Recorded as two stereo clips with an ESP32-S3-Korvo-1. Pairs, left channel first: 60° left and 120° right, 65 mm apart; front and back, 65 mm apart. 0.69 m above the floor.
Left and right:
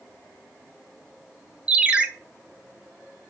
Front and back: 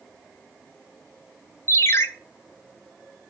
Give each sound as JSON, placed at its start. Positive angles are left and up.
{"t": 1.7, "sound": "a ringtone", "azimuth_deg": -45, "distance_m": 0.8}